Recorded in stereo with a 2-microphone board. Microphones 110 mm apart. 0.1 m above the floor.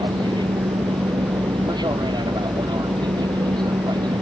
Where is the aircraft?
40° right (ahead or behind).